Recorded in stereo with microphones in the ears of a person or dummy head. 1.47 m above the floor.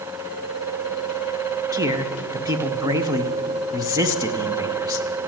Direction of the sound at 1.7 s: 25° right (ahead or behind).